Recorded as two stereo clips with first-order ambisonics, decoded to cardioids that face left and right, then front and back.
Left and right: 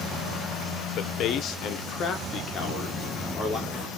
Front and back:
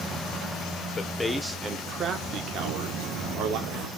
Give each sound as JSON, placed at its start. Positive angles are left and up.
{"t": 1.0, "sound": "a man speaking", "azimuth_deg": 60, "distance_m": 0.7}
{"t": 2.6, "sound": "footsteps", "azimuth_deg": 145, "distance_m": 4.0}